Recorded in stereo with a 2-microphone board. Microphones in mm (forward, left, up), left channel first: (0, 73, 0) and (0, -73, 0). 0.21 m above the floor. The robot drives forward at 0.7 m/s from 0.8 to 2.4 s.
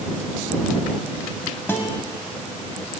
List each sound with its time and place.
1.7 s a guitar: 15° left (ahead or behind), 0.7 m